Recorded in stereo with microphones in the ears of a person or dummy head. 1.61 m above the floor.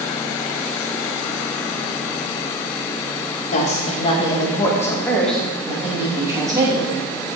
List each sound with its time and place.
3.5 s a woman speaking: 45° left (ahead or behind), 2.5 m; by 6.9 s 20° right (ahead or behind), 3 m